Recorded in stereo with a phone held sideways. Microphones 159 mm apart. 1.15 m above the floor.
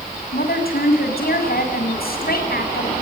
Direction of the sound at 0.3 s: 70° left (ahead or behind).